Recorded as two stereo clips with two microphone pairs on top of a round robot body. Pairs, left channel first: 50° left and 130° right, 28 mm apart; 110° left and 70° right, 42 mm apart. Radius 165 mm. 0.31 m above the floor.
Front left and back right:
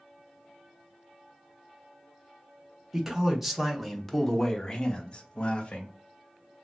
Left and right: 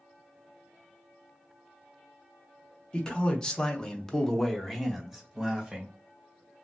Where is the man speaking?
160° left, 1.3 m; by 5.9 s 15° left, 1.1 m.